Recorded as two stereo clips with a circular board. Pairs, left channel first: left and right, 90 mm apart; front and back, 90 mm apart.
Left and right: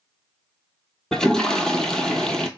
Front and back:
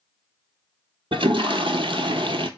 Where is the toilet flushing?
175° left, 0.6 m.